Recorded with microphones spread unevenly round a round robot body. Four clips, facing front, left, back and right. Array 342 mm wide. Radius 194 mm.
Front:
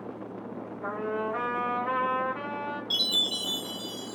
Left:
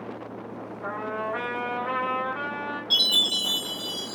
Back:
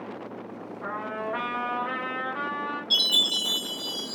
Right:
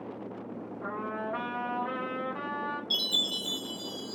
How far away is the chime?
About 0.9 m.